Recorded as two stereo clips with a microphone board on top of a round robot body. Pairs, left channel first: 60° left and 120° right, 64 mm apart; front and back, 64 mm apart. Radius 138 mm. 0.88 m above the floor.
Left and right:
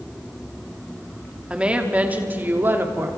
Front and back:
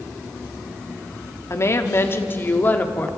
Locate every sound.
1.5 s a woman speaking: 45° right, 2 m; by 3.1 s 65° right, 2.5 m